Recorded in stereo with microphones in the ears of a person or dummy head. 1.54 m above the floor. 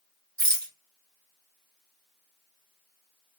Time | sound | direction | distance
0.4 | a rattle | 20° right (ahead or behind) | 1.3 m